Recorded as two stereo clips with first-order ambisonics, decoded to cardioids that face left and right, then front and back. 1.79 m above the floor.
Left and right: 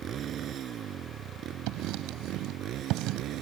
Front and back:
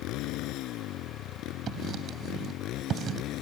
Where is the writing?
120° right.